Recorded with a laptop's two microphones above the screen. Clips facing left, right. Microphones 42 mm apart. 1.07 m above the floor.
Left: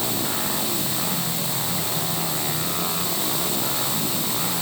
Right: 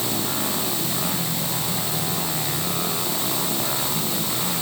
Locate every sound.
Only background noise.